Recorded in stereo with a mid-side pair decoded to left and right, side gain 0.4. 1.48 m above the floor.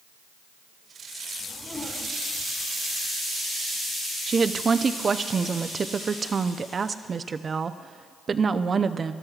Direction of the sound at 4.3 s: 40° right.